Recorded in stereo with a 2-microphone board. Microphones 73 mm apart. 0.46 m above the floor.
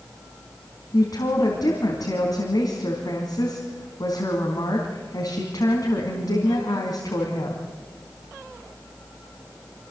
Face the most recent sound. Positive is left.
turn(degrees=60)  # may be behind; listen again after turning